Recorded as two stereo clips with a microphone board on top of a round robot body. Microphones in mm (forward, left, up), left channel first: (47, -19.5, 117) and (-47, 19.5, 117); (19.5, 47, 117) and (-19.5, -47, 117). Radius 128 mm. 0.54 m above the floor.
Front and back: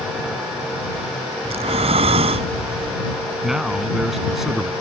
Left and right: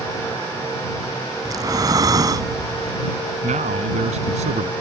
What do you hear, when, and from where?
1.4 s breathing: 170° right
3.4 s a man speaking: 115° right